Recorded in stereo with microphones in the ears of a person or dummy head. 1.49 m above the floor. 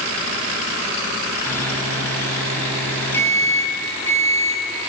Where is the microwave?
10° left (ahead or behind), 7 m.